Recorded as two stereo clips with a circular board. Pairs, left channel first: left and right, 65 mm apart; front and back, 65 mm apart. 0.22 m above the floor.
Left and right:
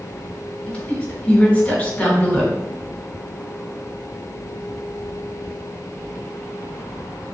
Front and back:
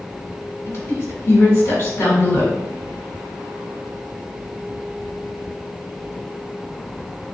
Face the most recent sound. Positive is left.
turn(degrees=35)